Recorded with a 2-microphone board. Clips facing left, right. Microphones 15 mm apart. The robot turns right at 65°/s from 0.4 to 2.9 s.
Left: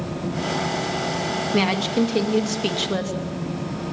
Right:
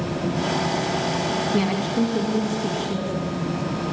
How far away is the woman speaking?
About 2.5 m.